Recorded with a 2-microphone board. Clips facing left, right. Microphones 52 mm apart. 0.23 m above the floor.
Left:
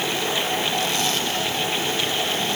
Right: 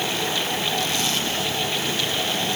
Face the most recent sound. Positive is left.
No sound to turn to.